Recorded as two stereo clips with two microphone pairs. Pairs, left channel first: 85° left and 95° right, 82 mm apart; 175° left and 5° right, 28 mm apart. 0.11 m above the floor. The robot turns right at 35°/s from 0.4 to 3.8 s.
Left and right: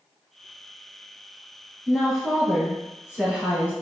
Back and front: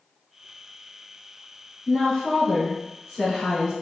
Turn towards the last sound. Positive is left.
turn(degrees=-125)